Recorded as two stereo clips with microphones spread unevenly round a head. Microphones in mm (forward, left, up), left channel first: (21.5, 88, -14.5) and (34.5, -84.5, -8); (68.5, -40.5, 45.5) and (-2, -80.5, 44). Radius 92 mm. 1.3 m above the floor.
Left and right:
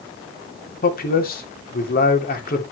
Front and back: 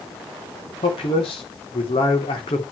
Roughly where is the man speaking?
Ahead left.